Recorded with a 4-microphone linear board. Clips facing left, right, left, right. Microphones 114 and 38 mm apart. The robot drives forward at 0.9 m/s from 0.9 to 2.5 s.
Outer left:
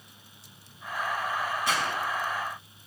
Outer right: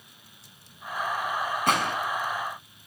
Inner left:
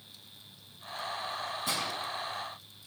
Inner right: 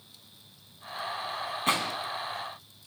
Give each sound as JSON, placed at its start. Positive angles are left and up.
{"t": 1.7, "sound": "a gunshot", "side_deg": -55, "distance_m": 2.5}